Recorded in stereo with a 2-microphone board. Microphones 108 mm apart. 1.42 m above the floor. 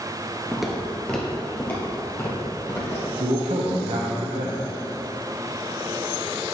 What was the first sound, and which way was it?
Footsteps, 5° right (ahead or behind).